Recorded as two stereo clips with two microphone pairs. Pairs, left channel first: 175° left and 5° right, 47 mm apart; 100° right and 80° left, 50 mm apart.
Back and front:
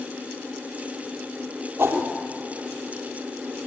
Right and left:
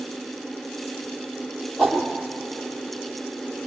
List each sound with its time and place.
1.8 s a whoosh: 10° right, 3.5 m